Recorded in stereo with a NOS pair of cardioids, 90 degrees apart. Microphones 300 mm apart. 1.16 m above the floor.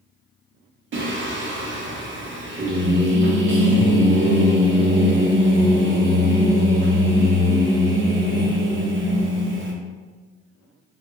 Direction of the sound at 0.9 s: 45° right.